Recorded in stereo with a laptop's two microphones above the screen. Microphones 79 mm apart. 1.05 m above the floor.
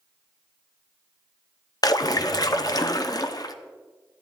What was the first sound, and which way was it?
A splash, 50° left (ahead or behind).